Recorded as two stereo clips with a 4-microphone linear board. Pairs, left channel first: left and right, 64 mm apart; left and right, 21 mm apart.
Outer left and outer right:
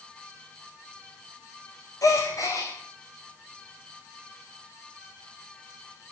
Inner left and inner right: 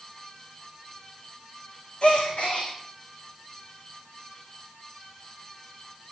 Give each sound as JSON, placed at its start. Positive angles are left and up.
{"t": 2.0, "sound": "a gasp", "side_deg": 60, "distance_m": 7.0}